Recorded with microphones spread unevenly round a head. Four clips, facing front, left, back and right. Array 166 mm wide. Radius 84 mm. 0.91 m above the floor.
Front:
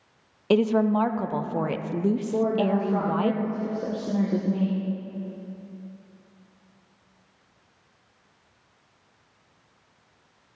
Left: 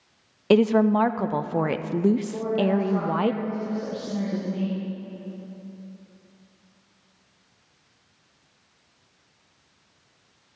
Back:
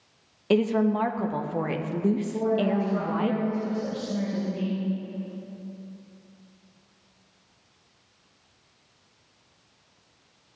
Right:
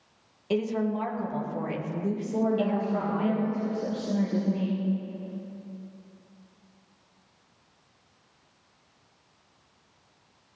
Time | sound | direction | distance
0.5 | a woman speaking | 85° left | 0.7 m
2.3 | a woman speaking | 5° left | 2 m